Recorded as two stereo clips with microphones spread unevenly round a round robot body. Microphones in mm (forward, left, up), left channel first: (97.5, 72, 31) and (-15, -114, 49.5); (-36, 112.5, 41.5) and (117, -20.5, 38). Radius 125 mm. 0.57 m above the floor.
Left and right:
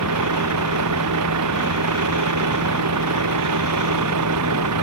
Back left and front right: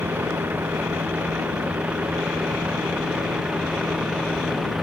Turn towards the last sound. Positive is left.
turn(degrees=-130)